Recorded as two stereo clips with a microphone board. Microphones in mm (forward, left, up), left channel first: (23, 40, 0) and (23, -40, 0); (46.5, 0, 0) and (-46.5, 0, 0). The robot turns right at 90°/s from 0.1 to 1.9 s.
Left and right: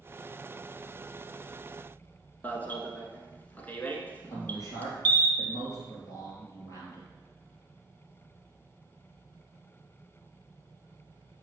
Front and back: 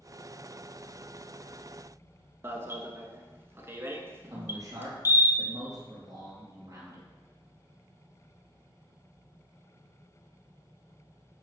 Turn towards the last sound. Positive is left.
turn(degrees=135)